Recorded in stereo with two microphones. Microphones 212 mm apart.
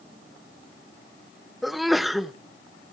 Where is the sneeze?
Centre (ahead or behind), 0.7 m.